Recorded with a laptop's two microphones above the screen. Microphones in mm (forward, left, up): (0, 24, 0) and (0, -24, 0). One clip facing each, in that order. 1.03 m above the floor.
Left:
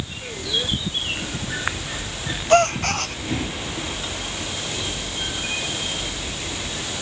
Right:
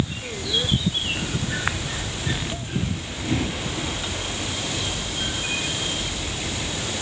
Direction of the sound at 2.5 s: 85° left.